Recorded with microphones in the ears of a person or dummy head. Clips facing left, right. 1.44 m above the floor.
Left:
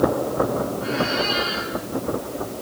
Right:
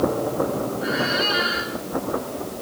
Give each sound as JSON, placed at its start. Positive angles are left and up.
{"t": 0.8, "sound": "a squeak", "side_deg": -15, "distance_m": 6.0}